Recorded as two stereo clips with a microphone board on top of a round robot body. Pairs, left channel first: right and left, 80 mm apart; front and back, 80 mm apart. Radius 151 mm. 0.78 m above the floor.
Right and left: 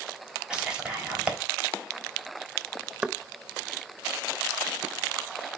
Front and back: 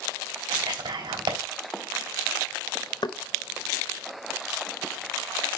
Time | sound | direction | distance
0.5 | whispering | 165° left | 4 m
3.0 | knocking | 10° left | 0.7 m